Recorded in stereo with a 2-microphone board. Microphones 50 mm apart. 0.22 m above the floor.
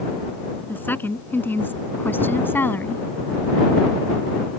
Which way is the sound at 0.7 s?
45° left (ahead or behind).